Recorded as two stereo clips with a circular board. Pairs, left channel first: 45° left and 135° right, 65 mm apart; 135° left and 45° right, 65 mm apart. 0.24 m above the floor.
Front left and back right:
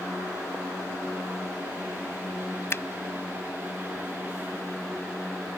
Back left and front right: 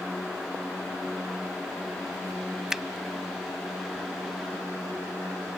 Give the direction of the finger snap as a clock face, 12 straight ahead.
11 o'clock.